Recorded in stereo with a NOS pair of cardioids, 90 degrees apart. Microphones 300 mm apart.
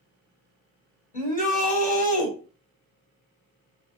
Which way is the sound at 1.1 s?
25° left.